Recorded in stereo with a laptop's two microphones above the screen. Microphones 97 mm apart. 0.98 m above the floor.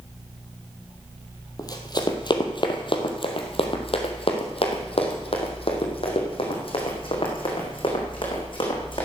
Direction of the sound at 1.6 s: 35° left (ahead or behind).